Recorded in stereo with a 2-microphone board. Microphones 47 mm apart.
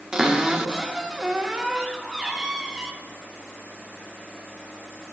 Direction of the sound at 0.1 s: 15° right (ahead or behind).